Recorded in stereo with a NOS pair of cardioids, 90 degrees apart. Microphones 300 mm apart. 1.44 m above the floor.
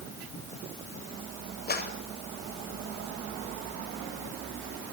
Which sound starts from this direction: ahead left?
A clap, at 1.7 s.